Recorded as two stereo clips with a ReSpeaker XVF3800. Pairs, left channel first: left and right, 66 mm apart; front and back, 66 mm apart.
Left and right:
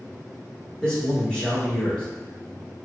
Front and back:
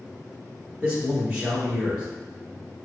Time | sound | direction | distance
0.8 | a man speaking | 140° left | 1.1 m